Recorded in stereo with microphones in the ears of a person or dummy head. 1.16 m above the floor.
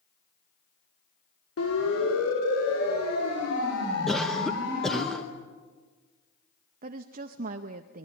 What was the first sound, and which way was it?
A siren, 75° left (ahead or behind).